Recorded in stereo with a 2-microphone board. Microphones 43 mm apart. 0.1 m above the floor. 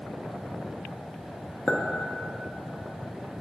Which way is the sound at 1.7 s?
30° left (ahead or behind).